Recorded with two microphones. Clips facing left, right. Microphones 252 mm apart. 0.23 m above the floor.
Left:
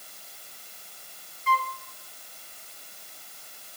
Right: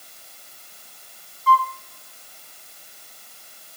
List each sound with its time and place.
1.5 s a flute: 30° left (ahead or behind), 0.7 m